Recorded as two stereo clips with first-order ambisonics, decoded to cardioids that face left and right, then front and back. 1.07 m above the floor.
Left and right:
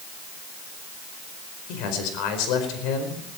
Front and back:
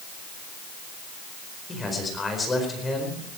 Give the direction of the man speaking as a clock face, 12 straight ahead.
9 o'clock.